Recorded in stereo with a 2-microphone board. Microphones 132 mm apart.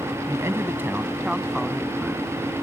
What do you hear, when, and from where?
0.3 s a man speaking: 25° right (ahead or behind); by 2.4 s 5° left (ahead or behind)